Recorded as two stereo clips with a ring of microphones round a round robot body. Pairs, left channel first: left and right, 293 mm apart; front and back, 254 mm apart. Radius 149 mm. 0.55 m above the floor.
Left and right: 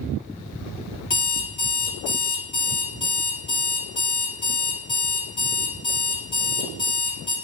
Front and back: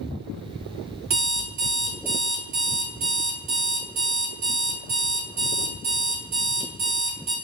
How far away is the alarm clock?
About 2 m.